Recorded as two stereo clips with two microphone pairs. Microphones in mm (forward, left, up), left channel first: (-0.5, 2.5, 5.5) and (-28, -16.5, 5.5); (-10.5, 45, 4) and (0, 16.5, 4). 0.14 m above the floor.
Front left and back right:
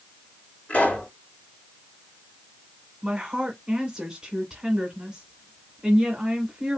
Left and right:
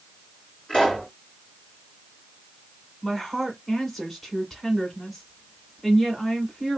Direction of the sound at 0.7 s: 65° left.